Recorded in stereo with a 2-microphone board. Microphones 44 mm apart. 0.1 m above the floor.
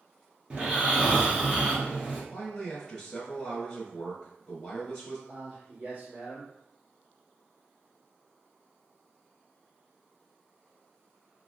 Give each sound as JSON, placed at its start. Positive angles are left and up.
{"t": 0.5, "sound": "snoring", "side_deg": -25, "distance_m": 1.2}
{"t": 2.3, "sound": "a man speaking", "side_deg": 5, "distance_m": 1.2}
{"t": 5.3, "sound": "a man speaking", "side_deg": -25, "distance_m": 1.9}